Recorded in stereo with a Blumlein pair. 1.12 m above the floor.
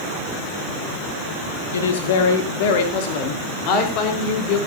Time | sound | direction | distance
1.7 | a woman speaking | 65° left | 1.9 m